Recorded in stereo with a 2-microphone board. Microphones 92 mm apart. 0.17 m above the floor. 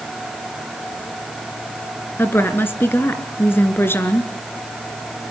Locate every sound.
2.2 s a woman speaking: 25° left (ahead or behind), 2 m